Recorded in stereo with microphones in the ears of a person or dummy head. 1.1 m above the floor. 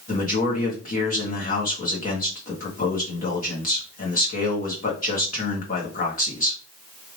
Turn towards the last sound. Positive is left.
turn(degrees=50)  # may be behind; listen again after turning